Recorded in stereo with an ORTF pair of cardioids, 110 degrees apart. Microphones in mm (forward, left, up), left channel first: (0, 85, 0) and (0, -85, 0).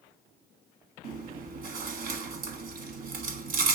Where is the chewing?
60° right, 1.6 m.